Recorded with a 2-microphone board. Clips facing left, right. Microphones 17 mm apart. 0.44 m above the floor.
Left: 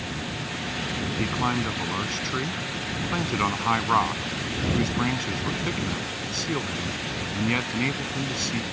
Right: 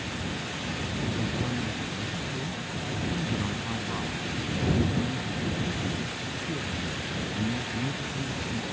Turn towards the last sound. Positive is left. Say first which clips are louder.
# left 5 dB
turn(degrees=60)  # may be behind; listen again after turning